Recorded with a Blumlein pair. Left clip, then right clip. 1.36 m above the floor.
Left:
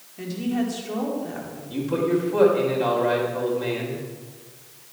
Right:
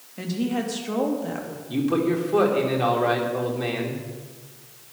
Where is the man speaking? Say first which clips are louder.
Even; 25° right, 3 m.